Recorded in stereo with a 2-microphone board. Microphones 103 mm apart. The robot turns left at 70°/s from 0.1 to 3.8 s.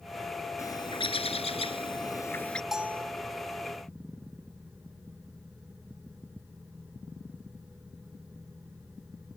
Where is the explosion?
I don't hear an explosion.